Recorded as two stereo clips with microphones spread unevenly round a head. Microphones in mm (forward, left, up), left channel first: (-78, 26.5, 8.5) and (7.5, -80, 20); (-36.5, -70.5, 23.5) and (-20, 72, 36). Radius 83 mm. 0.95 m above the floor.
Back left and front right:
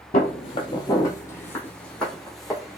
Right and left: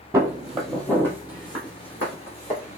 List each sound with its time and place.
0.1 s footsteps: 140° left, 1.2 m; by 2.8 s 140° right, 2.5 m